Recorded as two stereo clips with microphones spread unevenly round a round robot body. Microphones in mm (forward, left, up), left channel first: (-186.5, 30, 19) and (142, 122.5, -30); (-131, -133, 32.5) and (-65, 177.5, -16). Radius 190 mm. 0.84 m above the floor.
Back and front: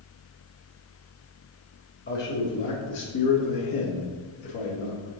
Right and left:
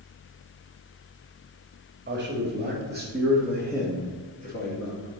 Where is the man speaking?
135° left, 1.7 m; by 5.1 s 155° right, 1.7 m.